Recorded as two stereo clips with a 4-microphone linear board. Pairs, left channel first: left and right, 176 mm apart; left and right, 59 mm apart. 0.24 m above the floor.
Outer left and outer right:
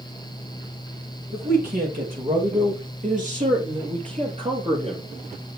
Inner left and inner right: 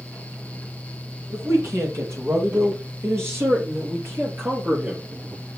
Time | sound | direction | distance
1.3 | a man speaking | 55° right (ahead or behind) | 6 m